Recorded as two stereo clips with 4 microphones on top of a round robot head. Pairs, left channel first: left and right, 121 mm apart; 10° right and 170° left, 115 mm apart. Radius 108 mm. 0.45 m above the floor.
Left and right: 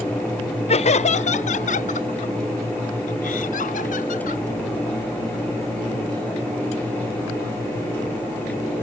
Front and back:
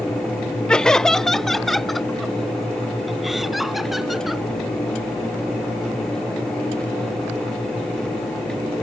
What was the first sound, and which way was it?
Laughter, 75° left.